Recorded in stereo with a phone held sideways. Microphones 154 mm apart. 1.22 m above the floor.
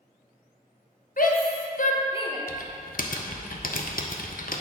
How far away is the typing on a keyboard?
About 0.6 m.